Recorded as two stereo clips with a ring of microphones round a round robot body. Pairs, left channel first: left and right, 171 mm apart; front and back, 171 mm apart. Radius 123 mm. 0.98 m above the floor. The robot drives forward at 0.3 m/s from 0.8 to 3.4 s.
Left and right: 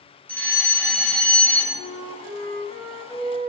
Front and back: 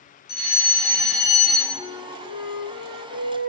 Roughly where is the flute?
Ahead right.